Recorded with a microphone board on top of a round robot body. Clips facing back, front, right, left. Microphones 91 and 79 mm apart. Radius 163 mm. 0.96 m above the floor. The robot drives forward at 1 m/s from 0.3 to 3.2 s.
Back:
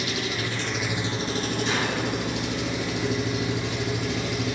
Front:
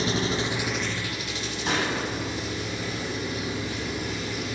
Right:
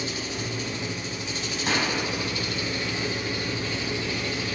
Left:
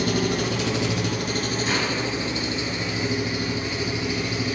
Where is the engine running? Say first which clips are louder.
Front 3 dB, left 9 dB; 60° left, 0.9 m; by 4.5 s 165° left, 2.5 m.